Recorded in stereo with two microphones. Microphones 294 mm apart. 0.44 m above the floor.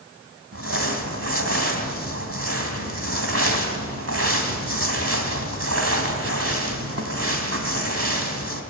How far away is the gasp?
No gasp in this recording.